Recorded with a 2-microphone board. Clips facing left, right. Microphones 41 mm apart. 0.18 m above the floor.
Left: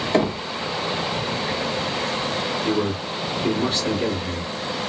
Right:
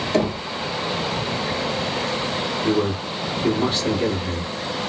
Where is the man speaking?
20° right (ahead or behind), 1.7 m.